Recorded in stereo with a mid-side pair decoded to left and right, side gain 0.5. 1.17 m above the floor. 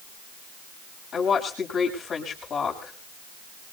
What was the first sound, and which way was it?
A woman speaking, 50° left.